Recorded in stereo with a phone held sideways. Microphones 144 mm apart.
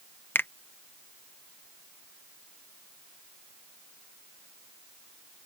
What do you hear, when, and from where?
0.3 s a finger snap: 15° left (ahead or behind)